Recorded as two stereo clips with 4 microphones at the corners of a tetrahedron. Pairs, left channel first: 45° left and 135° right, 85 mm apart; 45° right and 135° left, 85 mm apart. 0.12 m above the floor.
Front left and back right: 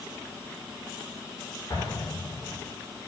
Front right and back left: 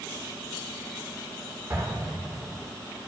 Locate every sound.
1.7 s an explosion: 70° left, 8 m